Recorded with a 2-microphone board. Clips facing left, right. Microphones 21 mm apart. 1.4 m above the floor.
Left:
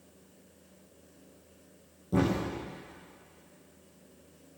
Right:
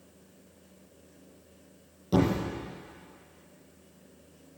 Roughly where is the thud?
Right.